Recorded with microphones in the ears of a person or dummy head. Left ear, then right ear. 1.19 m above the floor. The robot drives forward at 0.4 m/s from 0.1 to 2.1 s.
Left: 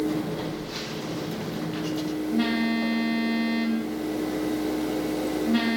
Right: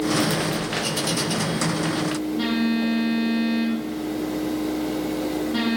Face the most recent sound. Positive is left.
turn(degrees=35)  # may be behind; listen again after turning